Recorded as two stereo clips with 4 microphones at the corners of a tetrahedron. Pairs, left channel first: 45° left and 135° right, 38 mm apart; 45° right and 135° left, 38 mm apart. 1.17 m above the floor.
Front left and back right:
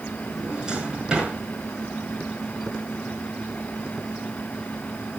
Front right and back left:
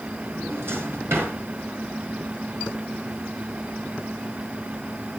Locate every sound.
0.3 s a drawer: 155° left, 6.5 m